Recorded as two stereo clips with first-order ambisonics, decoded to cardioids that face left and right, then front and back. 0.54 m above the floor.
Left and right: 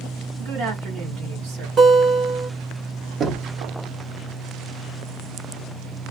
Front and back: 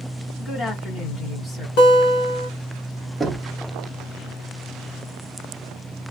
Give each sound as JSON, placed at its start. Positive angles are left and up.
{"t": 0.4, "sound": "a woman speaking", "azimuth_deg": -90, "distance_m": 1.6}
{"t": 1.8, "sound": "a guitar", "azimuth_deg": -20, "distance_m": 1.0}
{"t": 3.2, "sound": "knocking", "azimuth_deg": -105, "distance_m": 0.6}